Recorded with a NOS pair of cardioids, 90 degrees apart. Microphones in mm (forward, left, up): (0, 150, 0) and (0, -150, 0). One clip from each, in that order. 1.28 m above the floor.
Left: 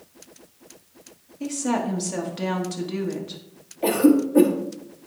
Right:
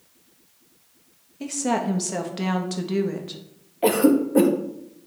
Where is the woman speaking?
20° right, 1.4 m.